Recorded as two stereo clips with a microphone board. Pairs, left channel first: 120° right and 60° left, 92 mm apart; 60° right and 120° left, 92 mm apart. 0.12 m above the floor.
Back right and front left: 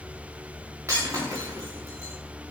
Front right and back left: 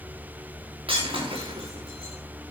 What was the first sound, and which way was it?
Breaking glass, 120° left.